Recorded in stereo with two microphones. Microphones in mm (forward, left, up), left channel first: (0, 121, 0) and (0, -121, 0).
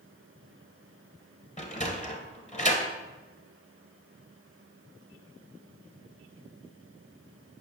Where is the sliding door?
30° left (ahead or behind), 1.0 m.